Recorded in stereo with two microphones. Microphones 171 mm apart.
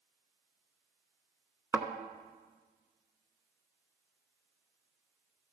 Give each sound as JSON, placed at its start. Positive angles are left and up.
{"t": 1.7, "sound": "a thud", "side_deg": -15, "distance_m": 0.8}